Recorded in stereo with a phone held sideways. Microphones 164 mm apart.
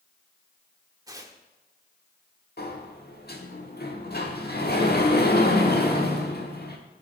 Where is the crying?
No crying in this recording.